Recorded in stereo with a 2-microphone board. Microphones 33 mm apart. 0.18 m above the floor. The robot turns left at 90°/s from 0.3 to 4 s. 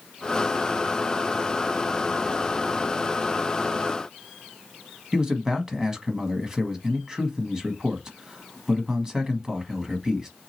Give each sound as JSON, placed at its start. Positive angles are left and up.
{"t": 5.1, "sound": "a man speaking", "side_deg": -20, "distance_m": 1.0}